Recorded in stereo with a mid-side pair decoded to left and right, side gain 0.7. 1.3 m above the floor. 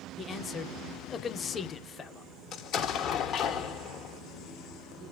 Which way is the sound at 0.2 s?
30° left.